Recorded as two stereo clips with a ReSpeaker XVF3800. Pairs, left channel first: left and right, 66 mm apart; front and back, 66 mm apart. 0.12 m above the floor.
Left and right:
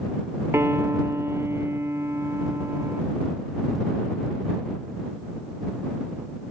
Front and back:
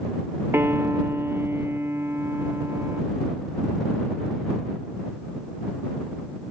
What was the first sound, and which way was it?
A piano, 130° right.